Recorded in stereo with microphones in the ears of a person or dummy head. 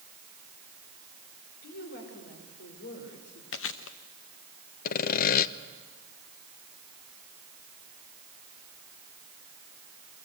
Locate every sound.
1.6 s a woman speaking: 75° left (ahead or behind), 4 m
3.5 s chewing: 70° left (ahead or behind), 0.8 m
4.8 s sawing: 60° left (ahead or behind), 0.7 m